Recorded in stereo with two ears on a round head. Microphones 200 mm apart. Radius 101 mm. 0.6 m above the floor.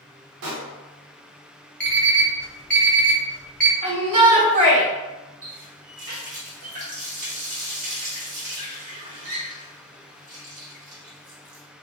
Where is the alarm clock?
5° left (ahead or behind), 0.5 m.